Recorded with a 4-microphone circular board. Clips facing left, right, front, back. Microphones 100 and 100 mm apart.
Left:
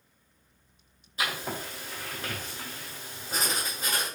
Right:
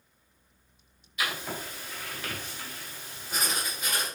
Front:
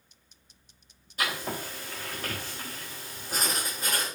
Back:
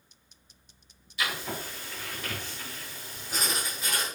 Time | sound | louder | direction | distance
1.2 | writing | left 1 dB, front 1 dB | 40° left | 4 m